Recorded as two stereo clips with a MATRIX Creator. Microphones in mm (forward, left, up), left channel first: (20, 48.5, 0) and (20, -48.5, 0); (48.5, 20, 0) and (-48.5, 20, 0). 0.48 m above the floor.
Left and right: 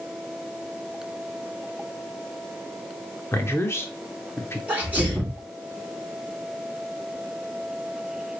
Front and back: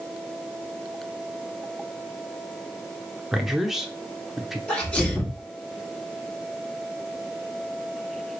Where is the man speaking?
95° left, 0.8 m.